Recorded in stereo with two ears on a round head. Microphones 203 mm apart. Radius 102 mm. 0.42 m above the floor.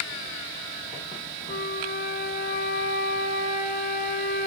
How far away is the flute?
About 1.5 m.